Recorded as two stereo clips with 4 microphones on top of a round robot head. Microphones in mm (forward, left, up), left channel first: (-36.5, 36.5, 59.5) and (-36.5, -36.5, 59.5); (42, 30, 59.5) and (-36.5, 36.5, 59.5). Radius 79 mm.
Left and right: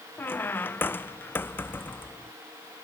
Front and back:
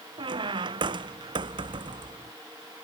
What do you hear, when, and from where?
0.2 s a squeak: 150° left